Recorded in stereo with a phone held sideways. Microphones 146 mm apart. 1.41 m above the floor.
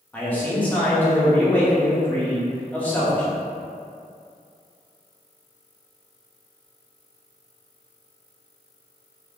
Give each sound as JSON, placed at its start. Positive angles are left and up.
{"t": 0.1, "sound": "a man speaking", "side_deg": 10, "distance_m": 1.2}